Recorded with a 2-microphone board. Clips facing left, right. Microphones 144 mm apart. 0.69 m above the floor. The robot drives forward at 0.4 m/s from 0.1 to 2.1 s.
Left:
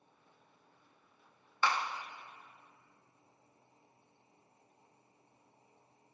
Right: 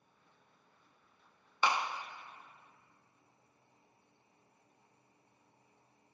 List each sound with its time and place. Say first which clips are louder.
1.6 s a clap: right 1 dB; 20° right (ahead or behind), 0.5 m; by 2.0 s 15° right (ahead or behind), 0.6 m